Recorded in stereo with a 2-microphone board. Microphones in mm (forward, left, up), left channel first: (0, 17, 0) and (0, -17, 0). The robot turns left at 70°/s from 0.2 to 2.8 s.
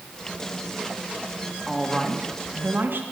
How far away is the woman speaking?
About 2 m.